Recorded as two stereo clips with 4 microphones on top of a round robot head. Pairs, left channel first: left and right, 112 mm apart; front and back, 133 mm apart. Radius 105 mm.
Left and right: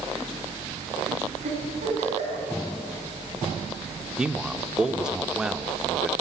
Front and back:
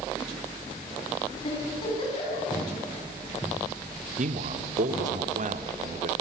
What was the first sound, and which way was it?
A giggle, 60° right.